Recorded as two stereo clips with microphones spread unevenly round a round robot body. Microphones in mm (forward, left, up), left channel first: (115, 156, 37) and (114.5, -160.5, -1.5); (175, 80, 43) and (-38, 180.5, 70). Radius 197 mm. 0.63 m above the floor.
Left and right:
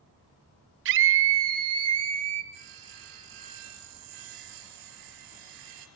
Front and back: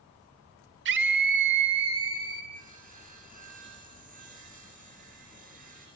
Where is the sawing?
135° right, 3.5 m.